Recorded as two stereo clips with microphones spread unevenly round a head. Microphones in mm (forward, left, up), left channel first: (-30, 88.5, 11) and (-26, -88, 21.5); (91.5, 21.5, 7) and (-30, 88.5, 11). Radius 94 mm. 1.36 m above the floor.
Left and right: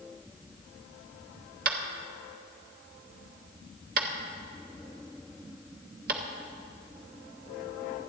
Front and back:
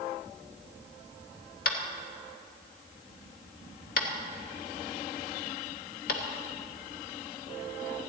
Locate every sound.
1.6 s tapping: 50° right, 1.4 m